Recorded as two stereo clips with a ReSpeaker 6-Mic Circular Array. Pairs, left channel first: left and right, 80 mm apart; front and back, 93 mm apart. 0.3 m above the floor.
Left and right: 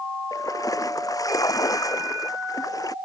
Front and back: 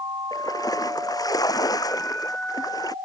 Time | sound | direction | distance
0.3 | a splash | 45° left | ?